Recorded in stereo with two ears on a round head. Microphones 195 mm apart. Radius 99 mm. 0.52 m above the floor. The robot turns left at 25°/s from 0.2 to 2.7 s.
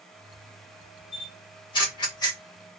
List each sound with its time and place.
1.1 s a camera shutter: 25° left (ahead or behind), 1.1 m; by 2.4 s 20° left (ahead or behind), 1.1 m